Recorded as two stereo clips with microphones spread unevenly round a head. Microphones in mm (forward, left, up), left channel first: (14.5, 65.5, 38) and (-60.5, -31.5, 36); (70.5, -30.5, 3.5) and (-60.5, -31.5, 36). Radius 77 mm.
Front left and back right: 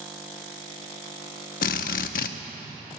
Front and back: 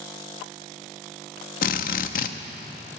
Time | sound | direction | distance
1.6 | a drill | 30° left | 0.6 m